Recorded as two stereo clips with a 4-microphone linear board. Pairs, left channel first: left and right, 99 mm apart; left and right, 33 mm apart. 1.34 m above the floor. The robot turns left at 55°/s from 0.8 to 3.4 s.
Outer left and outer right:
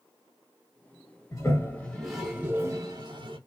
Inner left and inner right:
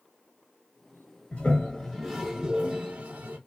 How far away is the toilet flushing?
About 1.0 m.